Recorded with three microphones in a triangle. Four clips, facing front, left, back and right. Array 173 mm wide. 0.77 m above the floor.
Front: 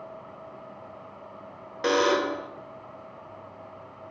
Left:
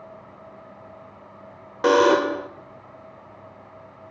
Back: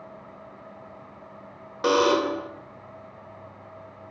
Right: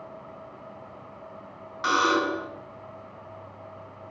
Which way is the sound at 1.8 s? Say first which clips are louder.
Left 7 dB, back 2 dB; 105° left.